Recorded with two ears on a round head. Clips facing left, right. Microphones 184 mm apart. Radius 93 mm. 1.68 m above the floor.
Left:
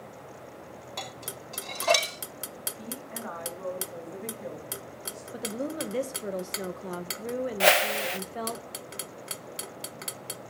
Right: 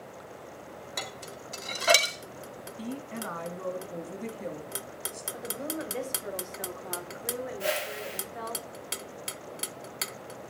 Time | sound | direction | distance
1.0 | dishes clattering | 15° right (ahead or behind) | 2 m
2.8 | a woman speaking | 40° right (ahead or behind) | 3 m
5.3 | a woman speaking | 45° left (ahead or behind) | 1.6 m
7.6 | a whoosh | 80° left | 0.7 m